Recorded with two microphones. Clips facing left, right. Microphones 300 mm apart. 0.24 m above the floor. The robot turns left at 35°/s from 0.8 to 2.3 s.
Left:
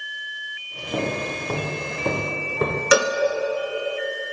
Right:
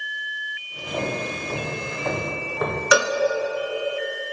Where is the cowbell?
30° left (ahead or behind), 1.3 m.